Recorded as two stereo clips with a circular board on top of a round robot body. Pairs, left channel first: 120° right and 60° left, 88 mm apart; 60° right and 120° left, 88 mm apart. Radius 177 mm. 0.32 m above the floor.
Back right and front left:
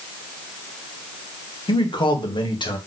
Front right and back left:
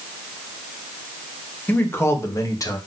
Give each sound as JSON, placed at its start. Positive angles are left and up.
{"t": 1.7, "sound": "a man speaking", "azimuth_deg": -125, "distance_m": 1.9}